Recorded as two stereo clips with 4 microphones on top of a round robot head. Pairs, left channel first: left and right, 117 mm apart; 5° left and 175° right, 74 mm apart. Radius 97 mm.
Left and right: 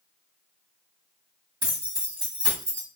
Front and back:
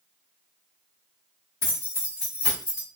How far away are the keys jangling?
About 1.8 m.